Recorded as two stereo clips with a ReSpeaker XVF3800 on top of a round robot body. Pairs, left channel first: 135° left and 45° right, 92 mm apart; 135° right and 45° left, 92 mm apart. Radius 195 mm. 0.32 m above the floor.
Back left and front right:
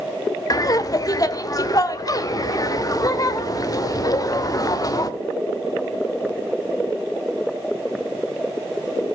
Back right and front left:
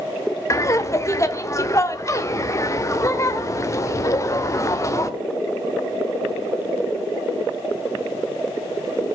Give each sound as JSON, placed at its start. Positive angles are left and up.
{"t": 0.5, "sound": "laughter", "azimuth_deg": 175, "distance_m": 2.0}